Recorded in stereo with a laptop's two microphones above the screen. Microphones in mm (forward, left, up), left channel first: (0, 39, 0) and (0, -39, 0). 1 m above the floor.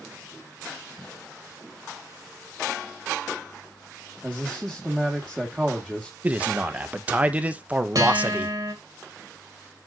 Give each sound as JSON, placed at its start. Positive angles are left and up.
{"t": 4.2, "sound": "a man speaking", "side_deg": -10, "distance_m": 1.7}
{"t": 6.2, "sound": "a man speaking", "side_deg": -20, "distance_m": 0.8}
{"t": 8.0, "sound": "a guitar", "side_deg": -60, "distance_m": 2.0}